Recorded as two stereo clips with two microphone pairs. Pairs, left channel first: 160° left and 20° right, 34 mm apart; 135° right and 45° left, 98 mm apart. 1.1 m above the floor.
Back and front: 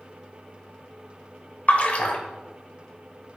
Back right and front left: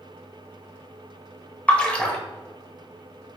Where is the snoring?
I don't hear snoring.